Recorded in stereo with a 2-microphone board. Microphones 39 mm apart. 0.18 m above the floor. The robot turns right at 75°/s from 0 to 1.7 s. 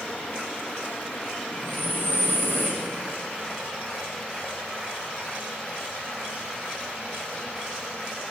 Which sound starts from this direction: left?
Breathing, at 1.5 s.